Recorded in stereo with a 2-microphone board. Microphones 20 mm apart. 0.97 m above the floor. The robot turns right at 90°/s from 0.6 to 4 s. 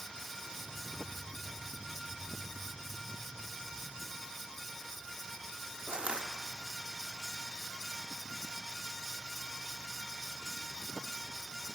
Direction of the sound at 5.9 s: 75° right (ahead or behind).